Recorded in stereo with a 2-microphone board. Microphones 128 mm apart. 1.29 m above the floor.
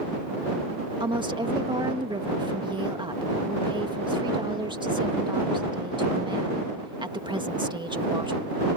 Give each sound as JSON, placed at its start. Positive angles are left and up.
{"t": 1.0, "sound": "a woman speaking", "side_deg": -35}